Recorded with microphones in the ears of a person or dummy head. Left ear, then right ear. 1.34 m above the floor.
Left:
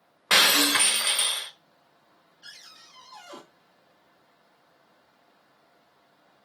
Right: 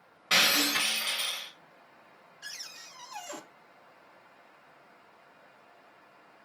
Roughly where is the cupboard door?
Right.